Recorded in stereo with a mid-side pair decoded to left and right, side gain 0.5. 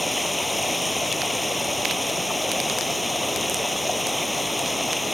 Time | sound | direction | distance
0.0 | running water | 5° left | ?